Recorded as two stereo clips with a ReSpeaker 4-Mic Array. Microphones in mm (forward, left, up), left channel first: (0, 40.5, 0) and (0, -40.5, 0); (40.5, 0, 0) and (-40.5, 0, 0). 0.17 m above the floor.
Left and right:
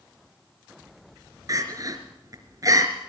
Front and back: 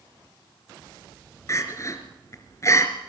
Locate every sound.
1.5 s crying: 50° right, 3 m